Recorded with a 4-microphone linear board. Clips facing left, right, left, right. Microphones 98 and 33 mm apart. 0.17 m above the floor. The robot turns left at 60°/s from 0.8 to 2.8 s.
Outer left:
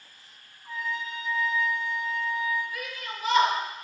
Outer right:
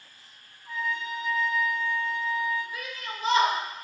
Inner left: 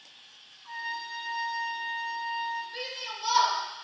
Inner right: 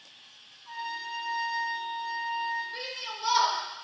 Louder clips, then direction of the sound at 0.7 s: Outer right 2 dB, even; 45° left.